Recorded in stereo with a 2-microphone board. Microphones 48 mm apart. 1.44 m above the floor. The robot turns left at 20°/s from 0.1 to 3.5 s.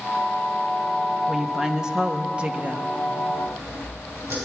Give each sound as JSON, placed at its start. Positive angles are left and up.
{"t": 1.3, "sound": "a woman speaking", "azimuth_deg": -5, "distance_m": 0.9}
{"t": 3.3, "sound": "sawing", "side_deg": -80, "distance_m": 7.0}